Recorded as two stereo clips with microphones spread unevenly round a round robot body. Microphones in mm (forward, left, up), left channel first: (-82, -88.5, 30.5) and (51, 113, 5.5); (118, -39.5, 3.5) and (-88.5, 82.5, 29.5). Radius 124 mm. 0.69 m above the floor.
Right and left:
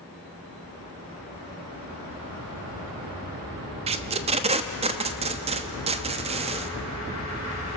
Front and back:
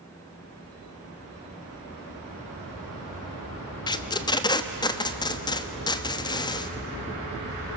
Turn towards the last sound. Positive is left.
turn(degrees=20)